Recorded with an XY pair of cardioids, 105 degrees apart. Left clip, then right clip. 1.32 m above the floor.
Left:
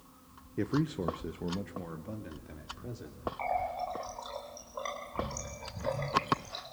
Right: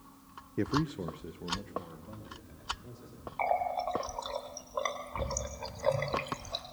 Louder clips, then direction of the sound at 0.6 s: Even; 15° right.